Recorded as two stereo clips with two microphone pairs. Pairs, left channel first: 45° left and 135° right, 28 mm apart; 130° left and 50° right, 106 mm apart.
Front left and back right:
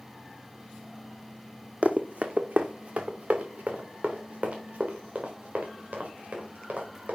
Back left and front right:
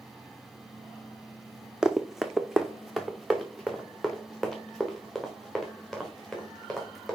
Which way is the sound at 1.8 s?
130° right.